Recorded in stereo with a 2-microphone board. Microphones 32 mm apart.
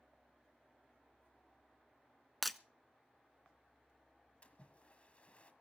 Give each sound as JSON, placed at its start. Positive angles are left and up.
{"t": 2.4, "sound": "breaking glass", "side_deg": 5, "distance_m": 0.5}
{"t": 4.4, "sound": "a splash", "side_deg": 35, "distance_m": 1.6}